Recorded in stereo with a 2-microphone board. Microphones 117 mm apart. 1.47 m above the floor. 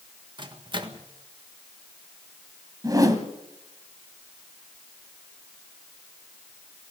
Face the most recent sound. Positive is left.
turn(degrees=-30)  # may be behind; listen again after turning